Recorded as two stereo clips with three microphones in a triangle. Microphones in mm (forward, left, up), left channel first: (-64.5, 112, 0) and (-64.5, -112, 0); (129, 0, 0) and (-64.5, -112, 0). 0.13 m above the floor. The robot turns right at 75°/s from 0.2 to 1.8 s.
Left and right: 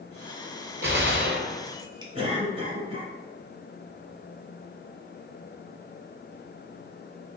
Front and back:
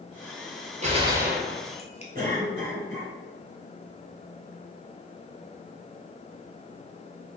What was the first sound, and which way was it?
A gunshot, 100° right.